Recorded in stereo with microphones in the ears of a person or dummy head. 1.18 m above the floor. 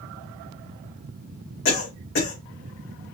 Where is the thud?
No thud in this recording.